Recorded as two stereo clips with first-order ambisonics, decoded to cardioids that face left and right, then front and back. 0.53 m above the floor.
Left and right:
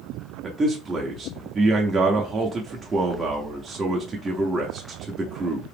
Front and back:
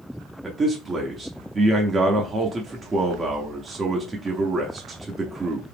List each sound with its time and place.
0.4 s a man speaking: 135° right, 0.7 m